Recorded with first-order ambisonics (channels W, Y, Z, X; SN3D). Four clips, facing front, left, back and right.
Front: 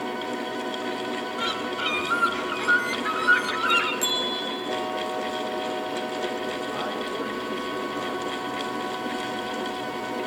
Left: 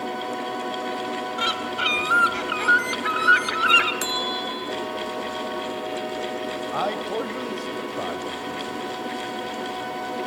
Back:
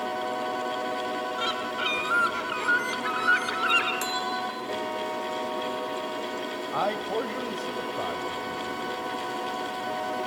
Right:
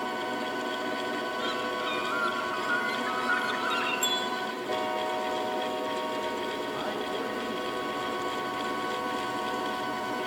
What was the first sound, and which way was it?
A bird, 90° left.